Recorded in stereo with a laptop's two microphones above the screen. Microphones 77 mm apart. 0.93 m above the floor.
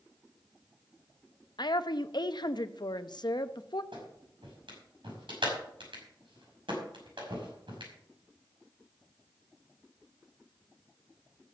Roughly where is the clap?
Right.